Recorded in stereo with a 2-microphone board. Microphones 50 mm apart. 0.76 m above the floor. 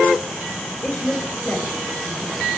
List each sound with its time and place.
0.8 s a woman speaking: 20° left (ahead or behind), 3.5 m